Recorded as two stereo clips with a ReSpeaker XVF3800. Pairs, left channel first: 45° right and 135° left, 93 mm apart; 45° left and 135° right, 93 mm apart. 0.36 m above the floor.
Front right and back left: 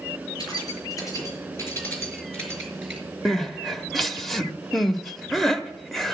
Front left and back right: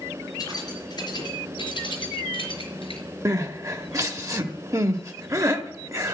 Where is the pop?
I don't hear a pop.